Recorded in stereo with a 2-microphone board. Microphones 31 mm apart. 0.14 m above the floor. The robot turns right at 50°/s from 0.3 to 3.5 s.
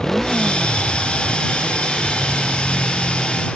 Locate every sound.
0.0 s a motorcycle: 15° left (ahead or behind); by 3.6 s centre (ahead or behind)